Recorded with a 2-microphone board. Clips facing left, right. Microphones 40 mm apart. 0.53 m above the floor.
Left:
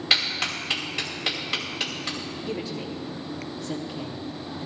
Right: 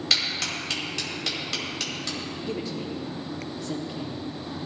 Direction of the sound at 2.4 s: 5° left (ahead or behind).